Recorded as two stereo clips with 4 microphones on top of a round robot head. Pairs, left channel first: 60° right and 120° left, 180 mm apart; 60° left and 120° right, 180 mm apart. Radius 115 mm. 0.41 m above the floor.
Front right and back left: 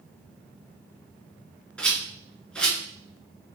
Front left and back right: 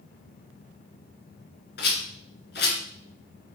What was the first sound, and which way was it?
A rattle, 25° left.